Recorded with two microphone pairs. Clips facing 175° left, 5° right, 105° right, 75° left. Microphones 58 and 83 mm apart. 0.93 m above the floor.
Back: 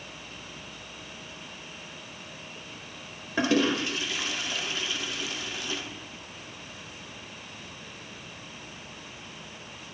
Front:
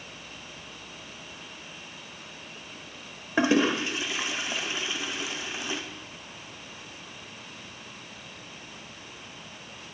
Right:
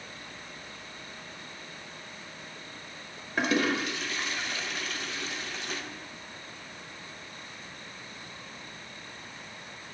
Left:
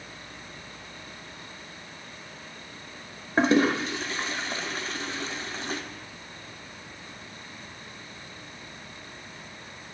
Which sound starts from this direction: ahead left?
A toilet flushing, at 3.4 s.